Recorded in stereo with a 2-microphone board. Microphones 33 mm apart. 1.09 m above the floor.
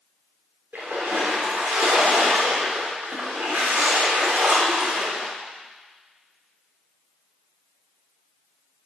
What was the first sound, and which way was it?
A splash, 80° right.